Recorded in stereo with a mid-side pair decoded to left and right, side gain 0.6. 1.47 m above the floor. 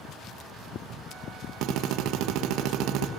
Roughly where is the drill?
Right.